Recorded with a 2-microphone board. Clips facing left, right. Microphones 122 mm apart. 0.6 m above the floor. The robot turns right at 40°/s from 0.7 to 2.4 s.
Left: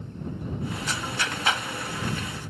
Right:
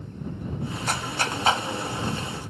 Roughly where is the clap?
Right.